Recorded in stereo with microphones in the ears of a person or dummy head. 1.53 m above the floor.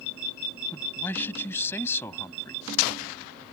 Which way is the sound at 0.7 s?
10° left (ahead or behind).